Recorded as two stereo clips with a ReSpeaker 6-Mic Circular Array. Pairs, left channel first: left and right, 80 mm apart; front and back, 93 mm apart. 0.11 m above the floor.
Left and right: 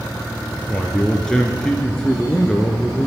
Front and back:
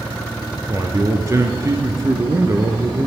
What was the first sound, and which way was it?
A man speaking, 165° left.